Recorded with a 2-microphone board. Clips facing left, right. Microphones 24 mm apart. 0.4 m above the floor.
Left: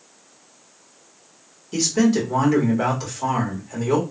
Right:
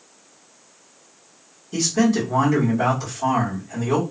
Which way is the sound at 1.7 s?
30° left (ahead or behind).